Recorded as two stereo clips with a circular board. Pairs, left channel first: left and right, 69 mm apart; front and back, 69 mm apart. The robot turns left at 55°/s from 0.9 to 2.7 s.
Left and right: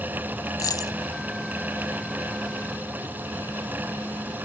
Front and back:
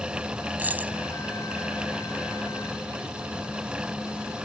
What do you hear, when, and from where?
0.6 s a dropped coin: 115° left; by 1.0 s 110° left